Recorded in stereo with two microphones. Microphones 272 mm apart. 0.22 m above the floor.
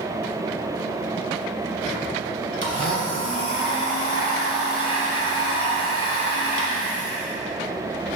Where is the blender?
55° right (ahead or behind), 1.3 m.